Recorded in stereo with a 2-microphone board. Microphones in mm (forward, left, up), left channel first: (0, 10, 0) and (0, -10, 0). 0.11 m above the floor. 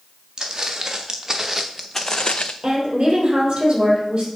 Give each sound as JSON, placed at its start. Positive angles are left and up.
{"t": 0.4, "sound": "footsteps", "side_deg": -30, "distance_m": 1.9}
{"t": 2.6, "sound": "a woman speaking", "side_deg": -35, "distance_m": 3.5}